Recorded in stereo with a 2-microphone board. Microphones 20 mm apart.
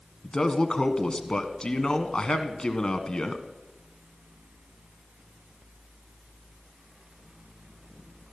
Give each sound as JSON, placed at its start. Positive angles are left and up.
{"t": 0.2, "sound": "a man speaking", "side_deg": 40, "distance_m": 1.5}